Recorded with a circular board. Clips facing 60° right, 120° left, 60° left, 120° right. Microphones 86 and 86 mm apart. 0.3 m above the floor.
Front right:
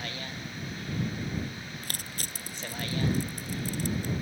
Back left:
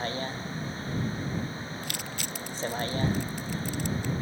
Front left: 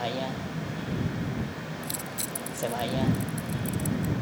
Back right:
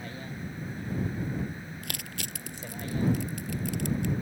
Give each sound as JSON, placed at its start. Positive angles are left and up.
{"t": 0.0, "sound": "a vehicle", "azimuth_deg": 65}
{"t": 1.8, "sound": "crushing", "azimuth_deg": -110}